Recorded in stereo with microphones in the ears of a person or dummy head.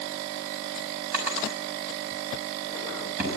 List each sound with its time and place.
1.1 s a drawer: 15° right (ahead or behind), 5.5 m